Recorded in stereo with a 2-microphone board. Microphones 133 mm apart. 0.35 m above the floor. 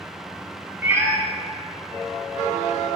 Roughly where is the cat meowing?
Centre.